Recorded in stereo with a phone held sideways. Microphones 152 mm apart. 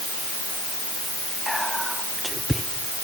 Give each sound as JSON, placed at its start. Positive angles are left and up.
{"t": 1.5, "sound": "whispering", "side_deg": 0, "distance_m": 0.9}